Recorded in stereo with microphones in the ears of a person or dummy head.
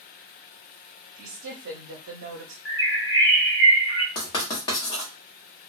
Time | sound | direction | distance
1.2 | a woman speaking | 70° right (ahead or behind) | 0.7 m
2.6 | a bird | 15° right (ahead or behind) | 1.9 m
4.2 | writing | 25° left (ahead or behind) | 1.3 m